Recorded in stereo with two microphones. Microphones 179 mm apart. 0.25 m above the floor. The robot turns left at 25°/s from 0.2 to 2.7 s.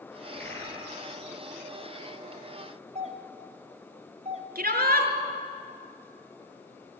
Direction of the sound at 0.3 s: 10° left (ahead or behind).